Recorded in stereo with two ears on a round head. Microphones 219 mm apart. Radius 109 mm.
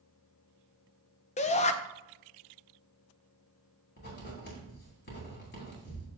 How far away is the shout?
About 0.6 m.